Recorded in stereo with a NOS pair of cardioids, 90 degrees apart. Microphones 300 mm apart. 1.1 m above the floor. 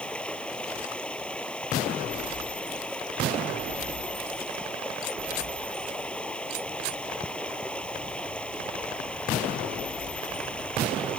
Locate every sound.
0.0 s running water: 5° left